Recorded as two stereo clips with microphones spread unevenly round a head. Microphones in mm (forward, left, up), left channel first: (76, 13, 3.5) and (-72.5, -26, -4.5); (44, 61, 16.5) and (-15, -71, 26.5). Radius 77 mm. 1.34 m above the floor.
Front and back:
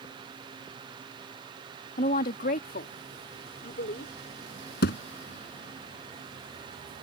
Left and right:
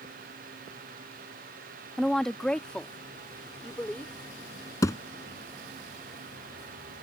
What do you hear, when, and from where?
2.0 s a woman speaking: 25° right; by 4.1 s 15° right
4.8 s a thud: 5° right